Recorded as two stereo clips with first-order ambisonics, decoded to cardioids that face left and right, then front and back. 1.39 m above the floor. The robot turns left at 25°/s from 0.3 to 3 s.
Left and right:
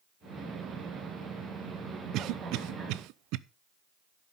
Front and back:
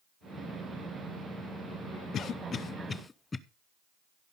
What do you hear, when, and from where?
2.1 s a cough: 55° right, 0.7 m; by 3.4 s 75° right, 0.7 m